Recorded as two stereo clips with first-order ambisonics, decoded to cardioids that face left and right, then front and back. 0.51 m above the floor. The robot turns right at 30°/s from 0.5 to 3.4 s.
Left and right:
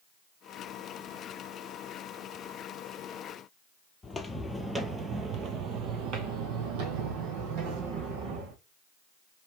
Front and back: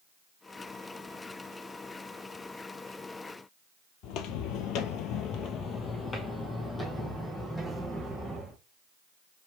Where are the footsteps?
15° left, 0.9 m; by 8.6 s 90° right, 2 m.